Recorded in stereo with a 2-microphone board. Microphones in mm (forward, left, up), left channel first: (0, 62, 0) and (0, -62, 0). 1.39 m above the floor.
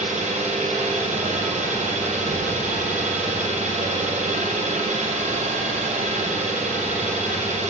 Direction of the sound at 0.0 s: 70° right (ahead or behind).